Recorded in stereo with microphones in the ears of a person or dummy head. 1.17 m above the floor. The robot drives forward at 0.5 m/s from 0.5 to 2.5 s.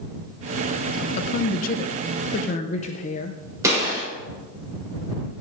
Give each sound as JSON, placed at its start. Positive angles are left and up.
{"t": 1.2, "sound": "a woman speaking", "side_deg": 35, "distance_m": 0.6}
{"t": 3.6, "sound": "a gunshot", "side_deg": -20, "distance_m": 4.0}